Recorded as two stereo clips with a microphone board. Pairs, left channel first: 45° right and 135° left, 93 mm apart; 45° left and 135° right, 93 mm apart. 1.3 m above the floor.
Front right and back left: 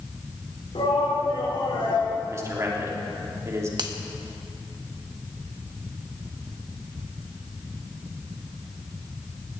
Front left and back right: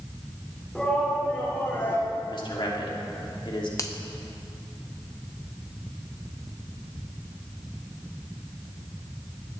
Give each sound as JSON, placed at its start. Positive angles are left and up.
{"t": 0.8, "sound": "a shout", "azimuth_deg": -40, "distance_m": 4.5}
{"t": 2.3, "sound": "a man speaking", "azimuth_deg": 75, "distance_m": 3.0}
{"t": 3.8, "sound": "a finger snap", "azimuth_deg": 95, "distance_m": 1.2}